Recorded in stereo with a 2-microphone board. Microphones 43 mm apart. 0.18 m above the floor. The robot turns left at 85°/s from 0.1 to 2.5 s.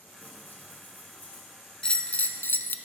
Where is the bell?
160° left, 0.5 m; by 2.8 s 100° left, 0.5 m.